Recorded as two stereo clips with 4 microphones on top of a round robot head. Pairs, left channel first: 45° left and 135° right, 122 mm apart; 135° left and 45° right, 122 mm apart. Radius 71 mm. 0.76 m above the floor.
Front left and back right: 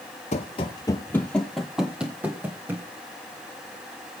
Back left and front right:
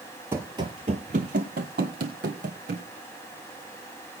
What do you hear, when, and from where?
0.3 s running footsteps: 25° left, 1.0 m; by 2.9 s 65° right, 2 m